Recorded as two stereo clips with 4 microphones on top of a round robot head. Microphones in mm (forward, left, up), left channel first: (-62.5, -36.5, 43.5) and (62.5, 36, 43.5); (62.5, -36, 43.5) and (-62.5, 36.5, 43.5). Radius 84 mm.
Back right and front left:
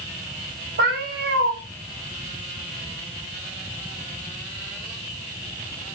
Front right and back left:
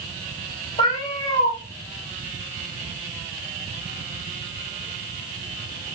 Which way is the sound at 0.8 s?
30° left.